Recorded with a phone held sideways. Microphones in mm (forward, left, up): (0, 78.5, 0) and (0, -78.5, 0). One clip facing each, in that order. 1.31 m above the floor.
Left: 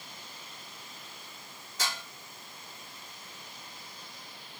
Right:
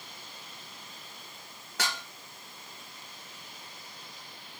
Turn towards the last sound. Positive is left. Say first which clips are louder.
# right 2 dB
turn(degrees=-70)  # may be behind; listen again after turning